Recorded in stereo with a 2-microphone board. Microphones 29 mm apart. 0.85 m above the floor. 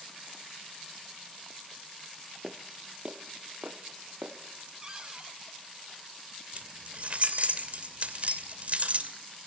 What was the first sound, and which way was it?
Footsteps, 10° right (ahead or behind).